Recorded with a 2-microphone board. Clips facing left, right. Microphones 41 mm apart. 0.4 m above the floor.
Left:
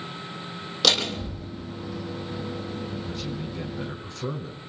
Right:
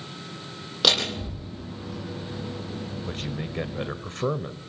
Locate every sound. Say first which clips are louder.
0.8 s a door slam: even; 15° right (ahead or behind), 9 m
3.1 s a man speaking: even; 50° right (ahead or behind), 1.6 m